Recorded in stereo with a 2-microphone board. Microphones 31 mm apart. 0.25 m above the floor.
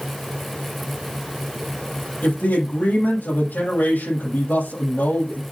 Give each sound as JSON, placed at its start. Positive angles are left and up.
{"t": 2.2, "sound": "a man speaking", "side_deg": 75, "distance_m": 7.0}